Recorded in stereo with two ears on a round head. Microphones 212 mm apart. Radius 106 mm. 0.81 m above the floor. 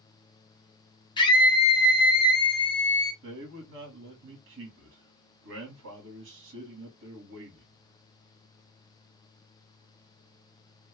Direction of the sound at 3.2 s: 55° right (ahead or behind).